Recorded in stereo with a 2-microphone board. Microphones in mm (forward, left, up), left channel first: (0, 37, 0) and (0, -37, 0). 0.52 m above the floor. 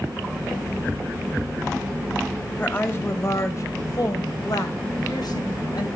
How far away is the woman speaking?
About 3 m.